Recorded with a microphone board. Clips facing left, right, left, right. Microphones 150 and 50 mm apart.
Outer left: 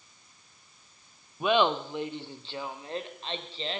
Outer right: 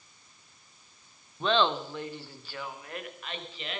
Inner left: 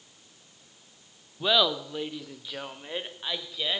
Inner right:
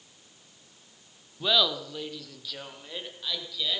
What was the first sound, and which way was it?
Laughter, 10° left (ahead or behind).